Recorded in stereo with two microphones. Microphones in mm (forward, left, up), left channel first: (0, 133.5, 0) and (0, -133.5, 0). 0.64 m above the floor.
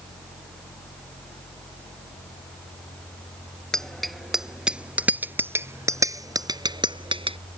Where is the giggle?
I don't hear a giggle.